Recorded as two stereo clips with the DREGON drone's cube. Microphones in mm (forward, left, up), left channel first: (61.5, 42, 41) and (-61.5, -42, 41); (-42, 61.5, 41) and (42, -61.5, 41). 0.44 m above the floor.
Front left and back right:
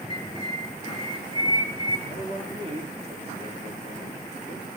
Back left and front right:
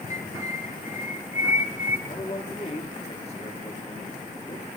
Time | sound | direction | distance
0.1 | a bird | 90° left | 3.5 m
2.1 | a man speaking | 170° left | 6.5 m